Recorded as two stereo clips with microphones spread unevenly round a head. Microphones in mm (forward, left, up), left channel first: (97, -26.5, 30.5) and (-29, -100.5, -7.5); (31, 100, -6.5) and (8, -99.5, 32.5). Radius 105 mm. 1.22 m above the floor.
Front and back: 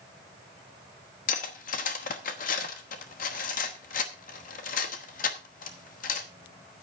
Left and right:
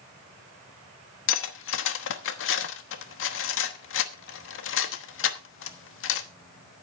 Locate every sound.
1.3 s cutlery clinking: 55° left, 1.0 m